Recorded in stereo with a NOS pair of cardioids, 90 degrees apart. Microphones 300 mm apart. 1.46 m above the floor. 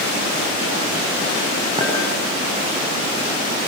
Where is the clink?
15° right, 9 m.